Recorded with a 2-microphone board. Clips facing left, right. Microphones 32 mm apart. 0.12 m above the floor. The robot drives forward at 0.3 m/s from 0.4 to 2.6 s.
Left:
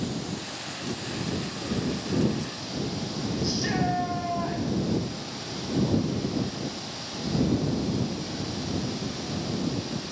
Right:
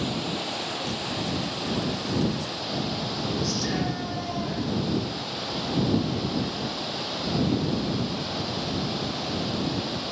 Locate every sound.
0.0 s running water: 50° right (ahead or behind), 3.5 m; by 10.1 s 40° right (ahead or behind), 4 m
3.4 s a shout: 25° left (ahead or behind), 6 m